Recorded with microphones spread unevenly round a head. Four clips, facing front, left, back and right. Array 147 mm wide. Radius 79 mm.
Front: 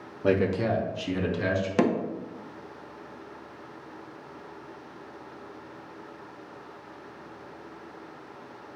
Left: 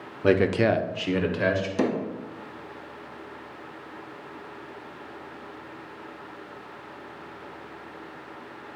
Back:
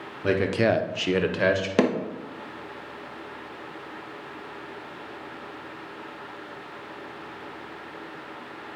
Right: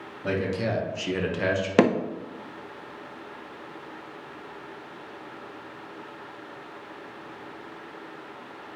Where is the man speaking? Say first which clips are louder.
Left 7 dB, back 2 dB; 55° left, 0.7 m; by 1.7 s 170° right, 1.8 m.